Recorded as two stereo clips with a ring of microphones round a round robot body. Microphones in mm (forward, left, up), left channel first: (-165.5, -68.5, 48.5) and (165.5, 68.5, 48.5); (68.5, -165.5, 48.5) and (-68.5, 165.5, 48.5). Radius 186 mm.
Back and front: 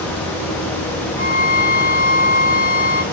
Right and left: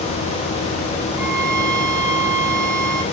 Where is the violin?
80° right, 4 m.